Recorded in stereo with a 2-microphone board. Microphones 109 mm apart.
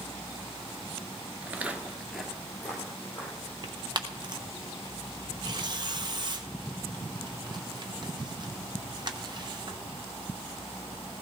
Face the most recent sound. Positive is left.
turn(degrees=-45)  # may be behind; listen again after turning